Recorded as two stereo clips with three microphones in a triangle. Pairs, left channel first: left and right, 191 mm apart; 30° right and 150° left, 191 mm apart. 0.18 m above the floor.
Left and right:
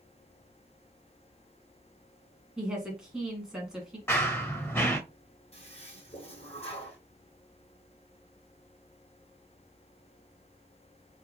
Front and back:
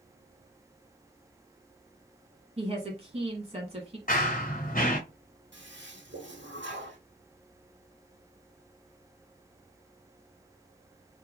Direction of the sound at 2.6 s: 175° right.